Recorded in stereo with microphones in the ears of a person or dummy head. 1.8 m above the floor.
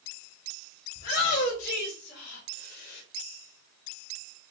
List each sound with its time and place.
0.9 s a shout: 55° left (ahead or behind), 3.5 m; by 3.0 s 50° left (ahead or behind), 1.5 m